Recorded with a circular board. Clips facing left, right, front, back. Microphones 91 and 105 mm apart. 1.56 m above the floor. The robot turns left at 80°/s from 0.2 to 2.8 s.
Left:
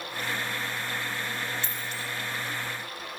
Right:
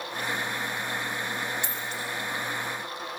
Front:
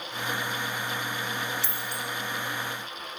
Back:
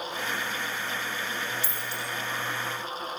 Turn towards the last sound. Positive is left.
turn(degrees=-105)